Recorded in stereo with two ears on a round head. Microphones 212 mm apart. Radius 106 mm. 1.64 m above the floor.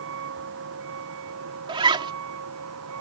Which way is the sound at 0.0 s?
60° right (ahead or behind).